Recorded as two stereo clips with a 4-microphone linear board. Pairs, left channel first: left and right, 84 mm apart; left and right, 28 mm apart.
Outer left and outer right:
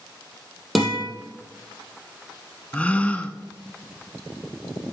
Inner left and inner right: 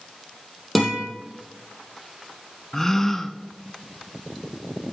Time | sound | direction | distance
0.8 | a guitar | centre (ahead or behind) | 3 m
2.7 | a gasp | 15° left (ahead or behind) | 0.6 m